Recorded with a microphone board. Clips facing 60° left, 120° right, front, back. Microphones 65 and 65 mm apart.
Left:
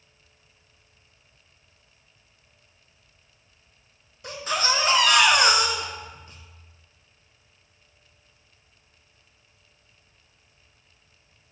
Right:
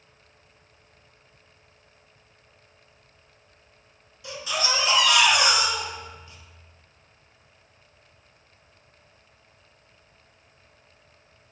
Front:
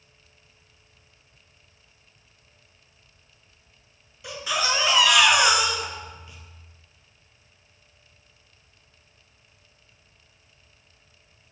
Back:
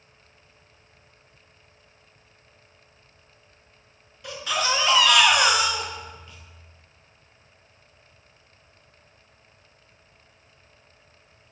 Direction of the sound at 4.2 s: 80° left.